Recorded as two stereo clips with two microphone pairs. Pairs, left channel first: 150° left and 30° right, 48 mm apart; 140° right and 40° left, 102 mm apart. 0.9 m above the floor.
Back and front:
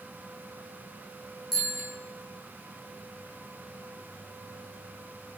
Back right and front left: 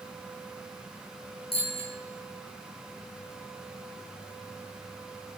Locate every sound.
1.5 s a bicycle bell: 120° right, 6.5 m